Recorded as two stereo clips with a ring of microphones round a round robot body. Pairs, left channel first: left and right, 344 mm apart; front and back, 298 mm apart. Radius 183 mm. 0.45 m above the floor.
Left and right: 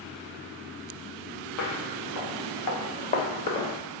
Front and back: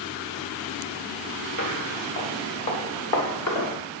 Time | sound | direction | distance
1.6 | footsteps | 45° left | 3.5 m